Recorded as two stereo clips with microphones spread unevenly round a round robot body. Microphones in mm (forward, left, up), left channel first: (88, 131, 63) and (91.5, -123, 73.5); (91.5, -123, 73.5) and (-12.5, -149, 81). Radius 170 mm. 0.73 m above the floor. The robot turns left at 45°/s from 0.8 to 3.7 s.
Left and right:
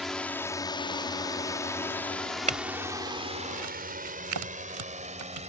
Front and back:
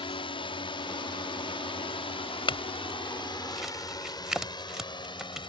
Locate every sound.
0.0 s a drone: straight ahead; by 5.5 s 25° right
2.5 s a clink: 25° right; by 5.5 s 80° right